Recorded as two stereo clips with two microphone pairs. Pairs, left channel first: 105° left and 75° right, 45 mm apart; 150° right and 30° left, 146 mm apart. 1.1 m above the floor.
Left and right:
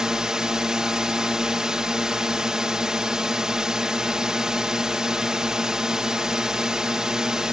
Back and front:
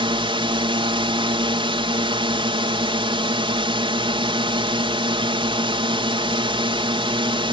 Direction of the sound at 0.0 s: 5° right.